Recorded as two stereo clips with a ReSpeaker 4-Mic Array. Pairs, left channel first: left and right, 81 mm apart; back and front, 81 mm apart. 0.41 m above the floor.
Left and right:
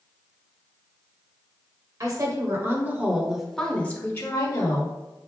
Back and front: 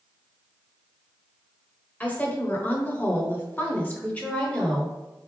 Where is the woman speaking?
115° right, 1.3 m; by 4.9 s 105° left, 1.3 m.